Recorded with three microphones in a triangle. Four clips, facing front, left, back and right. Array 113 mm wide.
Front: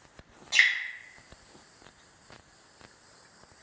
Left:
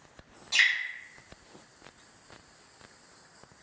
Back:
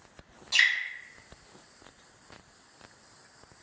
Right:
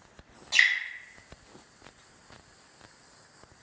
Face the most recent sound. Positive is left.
turn(degrees=-35)